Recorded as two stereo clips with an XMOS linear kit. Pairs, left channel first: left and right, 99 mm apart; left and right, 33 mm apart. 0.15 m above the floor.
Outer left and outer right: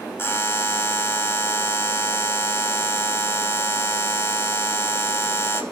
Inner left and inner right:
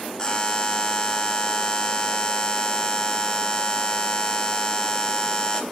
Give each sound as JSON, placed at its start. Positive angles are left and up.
{"t": 0.2, "sound": "a buzzer", "side_deg": 25, "distance_m": 1.0}